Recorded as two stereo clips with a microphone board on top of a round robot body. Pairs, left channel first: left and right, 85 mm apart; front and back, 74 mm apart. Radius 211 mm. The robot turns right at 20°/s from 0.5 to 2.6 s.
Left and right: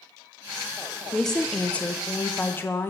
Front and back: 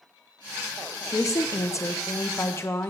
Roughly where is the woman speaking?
Ahead.